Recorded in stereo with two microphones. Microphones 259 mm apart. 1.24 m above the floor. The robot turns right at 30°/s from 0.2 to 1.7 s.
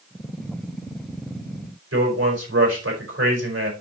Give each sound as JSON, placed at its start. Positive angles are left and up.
{"t": 1.9, "sound": "a man speaking", "side_deg": -65, "distance_m": 4.5}